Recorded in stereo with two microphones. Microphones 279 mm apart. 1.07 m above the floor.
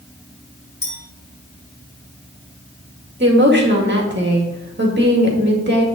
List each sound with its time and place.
0.8 s a clink: 40° left (ahead or behind), 4.5 m
3.2 s a woman speaking: 40° right (ahead or behind), 2.0 m